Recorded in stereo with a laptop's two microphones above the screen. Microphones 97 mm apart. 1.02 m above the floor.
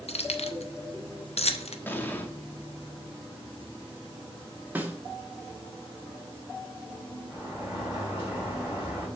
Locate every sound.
0.1 s keys jangling: 80° left, 0.5 m
1.9 s an explosion: 20° left (ahead or behind), 0.6 m
4.8 s a snare drum: 15° right (ahead or behind), 1.1 m
7.3 s a sliding door: 10° right (ahead or behind), 3.5 m